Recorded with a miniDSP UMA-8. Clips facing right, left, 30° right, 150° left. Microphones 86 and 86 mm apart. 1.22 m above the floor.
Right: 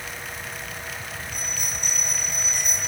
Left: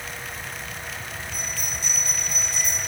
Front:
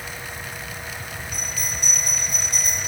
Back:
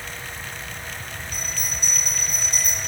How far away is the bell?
About 7.5 m.